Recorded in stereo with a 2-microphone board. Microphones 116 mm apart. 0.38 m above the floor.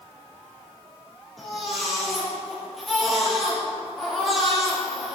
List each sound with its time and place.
1.4 s a baby crying: centre (ahead or behind), 5 m